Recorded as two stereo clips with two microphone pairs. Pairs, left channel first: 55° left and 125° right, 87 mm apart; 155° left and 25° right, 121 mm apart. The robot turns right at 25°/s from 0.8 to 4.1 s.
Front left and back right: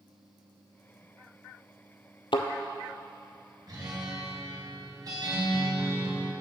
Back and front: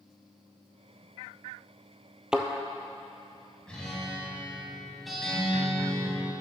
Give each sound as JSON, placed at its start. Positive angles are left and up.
{"t": 2.3, "sound": "a thud", "azimuth_deg": 55, "distance_m": 0.8}
{"t": 3.7, "sound": "a guitar", "azimuth_deg": -125, "distance_m": 1.9}